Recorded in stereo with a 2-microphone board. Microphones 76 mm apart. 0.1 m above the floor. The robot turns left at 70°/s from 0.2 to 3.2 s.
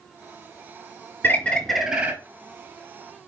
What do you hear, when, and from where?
1.2 s a bird: 35° left, 0.6 m; by 2.1 s 25° right, 0.6 m